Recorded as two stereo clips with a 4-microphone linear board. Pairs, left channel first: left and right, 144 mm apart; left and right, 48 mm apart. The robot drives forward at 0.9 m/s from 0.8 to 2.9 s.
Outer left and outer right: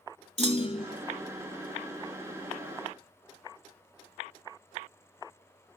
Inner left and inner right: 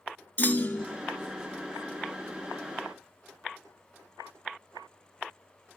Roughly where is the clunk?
Left.